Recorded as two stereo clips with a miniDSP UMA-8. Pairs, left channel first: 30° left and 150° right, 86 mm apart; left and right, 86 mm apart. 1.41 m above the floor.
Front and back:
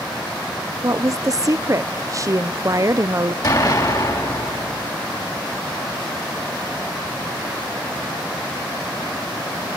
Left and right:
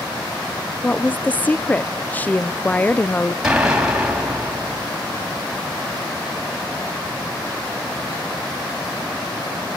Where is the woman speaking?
160° left, 0.5 m.